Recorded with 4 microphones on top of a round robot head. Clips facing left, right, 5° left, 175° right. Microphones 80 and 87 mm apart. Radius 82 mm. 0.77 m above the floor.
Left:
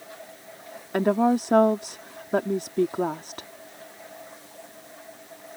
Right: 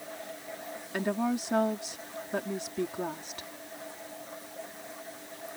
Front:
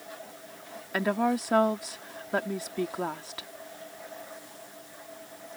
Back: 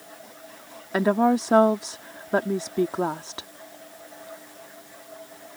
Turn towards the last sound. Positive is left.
turn(degrees=125)